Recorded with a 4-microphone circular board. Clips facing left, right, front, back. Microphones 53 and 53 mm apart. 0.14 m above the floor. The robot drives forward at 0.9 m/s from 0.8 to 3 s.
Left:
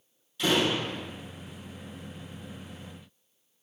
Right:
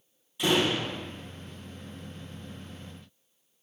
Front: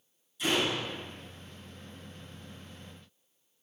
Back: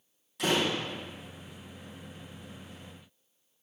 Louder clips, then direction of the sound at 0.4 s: Even, back 1 dB; 165° right.